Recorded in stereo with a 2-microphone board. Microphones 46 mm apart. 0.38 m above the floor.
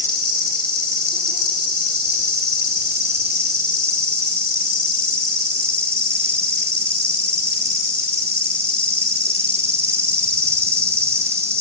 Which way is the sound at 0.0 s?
80° right.